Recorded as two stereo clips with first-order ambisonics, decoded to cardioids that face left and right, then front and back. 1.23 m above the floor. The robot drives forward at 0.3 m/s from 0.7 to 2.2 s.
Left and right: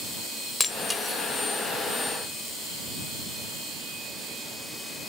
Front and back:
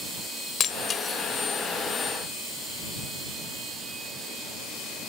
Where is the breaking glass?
15° left, 1.0 m; by 1.2 s 25° left, 1.0 m.